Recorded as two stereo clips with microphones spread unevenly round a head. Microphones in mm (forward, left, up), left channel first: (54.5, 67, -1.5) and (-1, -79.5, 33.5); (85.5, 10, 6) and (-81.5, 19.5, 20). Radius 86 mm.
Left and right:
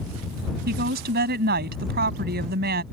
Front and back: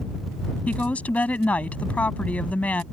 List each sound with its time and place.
0.7 s a woman speaking: 85° right